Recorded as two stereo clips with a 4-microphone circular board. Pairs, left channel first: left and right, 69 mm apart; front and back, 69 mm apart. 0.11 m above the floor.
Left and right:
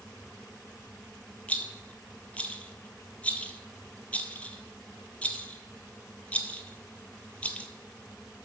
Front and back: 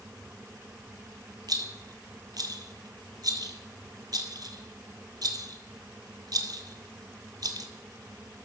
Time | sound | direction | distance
1.5 | a rattle | 160° left | 0.8 m